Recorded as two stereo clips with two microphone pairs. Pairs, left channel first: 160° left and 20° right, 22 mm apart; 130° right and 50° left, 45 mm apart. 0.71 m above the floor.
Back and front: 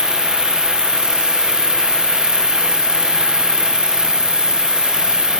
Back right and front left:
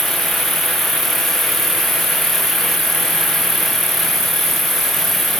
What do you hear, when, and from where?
0.0 s an insect: 130° left